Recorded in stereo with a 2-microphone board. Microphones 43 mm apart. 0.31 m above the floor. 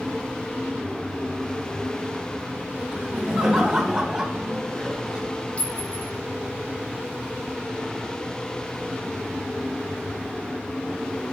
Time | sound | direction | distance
2.9 | laughter | centre (ahead or behind) | 2 m
5.6 | a clink | 25° left (ahead or behind) | 1.8 m